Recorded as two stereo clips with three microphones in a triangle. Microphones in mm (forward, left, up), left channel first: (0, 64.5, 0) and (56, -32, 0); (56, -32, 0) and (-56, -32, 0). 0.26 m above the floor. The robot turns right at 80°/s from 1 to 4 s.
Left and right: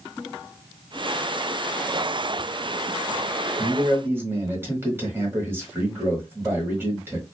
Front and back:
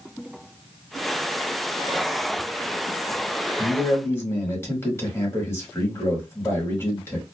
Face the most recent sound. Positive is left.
turn(degrees=-25)